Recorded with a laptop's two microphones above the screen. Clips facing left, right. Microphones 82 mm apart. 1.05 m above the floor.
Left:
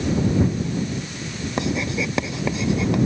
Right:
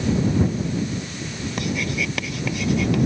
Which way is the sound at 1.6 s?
25° left (ahead or behind).